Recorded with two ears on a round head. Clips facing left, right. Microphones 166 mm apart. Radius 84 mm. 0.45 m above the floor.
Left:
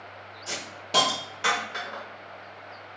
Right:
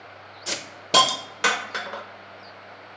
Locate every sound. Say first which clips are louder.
0.5 s a hiss: right 6 dB; 65° right (ahead or behind), 0.6 m